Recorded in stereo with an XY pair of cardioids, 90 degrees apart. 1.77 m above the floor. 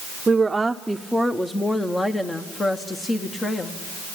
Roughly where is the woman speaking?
Ahead right.